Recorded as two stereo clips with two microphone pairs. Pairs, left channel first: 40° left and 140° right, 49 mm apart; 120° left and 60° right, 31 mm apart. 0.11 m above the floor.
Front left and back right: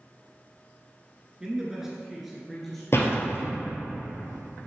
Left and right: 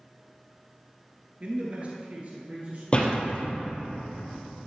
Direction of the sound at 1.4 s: 75° right.